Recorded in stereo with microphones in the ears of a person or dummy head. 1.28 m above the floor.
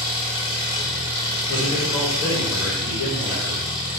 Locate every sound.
0.0 s an engine running: 35° left (ahead or behind), 1.5 m
1.5 s a man speaking: 70° left (ahead or behind), 1.9 m